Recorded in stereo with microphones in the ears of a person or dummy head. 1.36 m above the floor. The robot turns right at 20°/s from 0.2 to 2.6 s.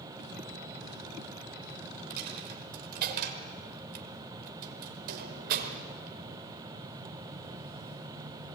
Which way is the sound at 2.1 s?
50° right (ahead or behind).